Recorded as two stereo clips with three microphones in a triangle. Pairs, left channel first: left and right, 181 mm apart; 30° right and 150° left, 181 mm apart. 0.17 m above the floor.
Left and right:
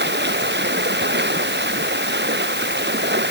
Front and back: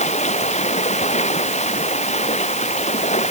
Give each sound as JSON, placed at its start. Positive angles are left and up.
{"t": 0.0, "sound": "running water", "azimuth_deg": -80}